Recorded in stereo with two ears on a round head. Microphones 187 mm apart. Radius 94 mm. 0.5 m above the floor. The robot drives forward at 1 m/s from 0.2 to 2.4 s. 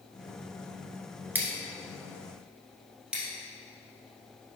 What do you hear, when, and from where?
1.4 s scissors: 10° right (ahead or behind), 1.1 m; by 4.6 s 5° right (ahead or behind), 2 m